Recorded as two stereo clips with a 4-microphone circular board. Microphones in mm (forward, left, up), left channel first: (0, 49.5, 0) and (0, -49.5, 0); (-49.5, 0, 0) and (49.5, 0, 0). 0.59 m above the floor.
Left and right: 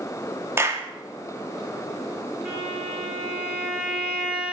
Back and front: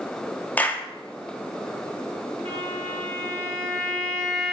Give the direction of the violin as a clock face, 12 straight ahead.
1 o'clock.